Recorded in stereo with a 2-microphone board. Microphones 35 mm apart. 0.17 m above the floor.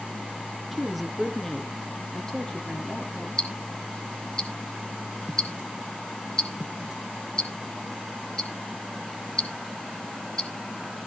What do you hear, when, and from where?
0.7 s a woman speaking: 5° right (ahead or behind), 1.6 m; by 3.3 s 30° left (ahead or behind), 3.5 m
3.4 s ticking: 20° left (ahead or behind), 2 m